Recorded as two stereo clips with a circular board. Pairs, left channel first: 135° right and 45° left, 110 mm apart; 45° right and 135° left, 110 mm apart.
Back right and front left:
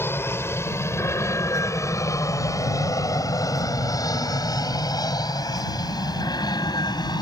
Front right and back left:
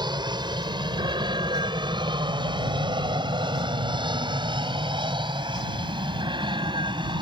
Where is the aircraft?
160° left; by 7.2 s 175° left.